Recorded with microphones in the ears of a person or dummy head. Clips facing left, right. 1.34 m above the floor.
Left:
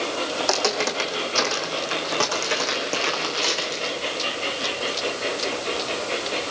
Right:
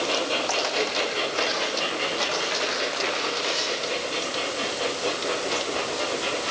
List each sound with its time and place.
0.4 s footsteps: 55° left (ahead or behind), 5 m